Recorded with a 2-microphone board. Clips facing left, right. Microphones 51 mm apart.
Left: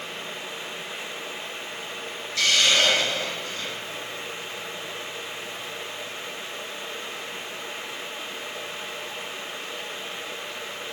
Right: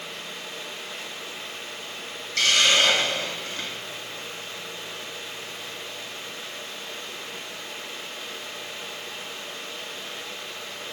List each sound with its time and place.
2.4 s a hiss: 65° right (ahead or behind), 1.8 m